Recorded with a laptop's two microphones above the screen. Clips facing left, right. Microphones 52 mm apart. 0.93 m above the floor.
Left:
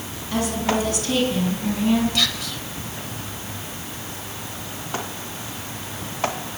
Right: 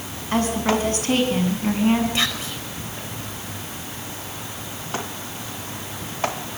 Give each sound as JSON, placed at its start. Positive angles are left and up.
{"t": 0.3, "sound": "a woman speaking", "side_deg": -45, "distance_m": 6.5}
{"t": 2.1, "sound": "whispering", "side_deg": -25, "distance_m": 5.0}